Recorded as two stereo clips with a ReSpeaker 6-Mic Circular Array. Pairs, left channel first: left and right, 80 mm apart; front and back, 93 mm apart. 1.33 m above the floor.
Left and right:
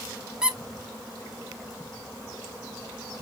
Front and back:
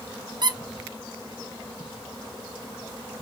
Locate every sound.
0.4 s a squeak: 165° right, 0.6 m